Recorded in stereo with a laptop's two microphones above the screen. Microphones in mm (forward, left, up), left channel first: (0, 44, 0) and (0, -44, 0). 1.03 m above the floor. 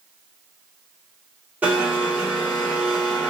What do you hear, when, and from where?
1.6 s a blender: 15° right (ahead or behind), 1.3 m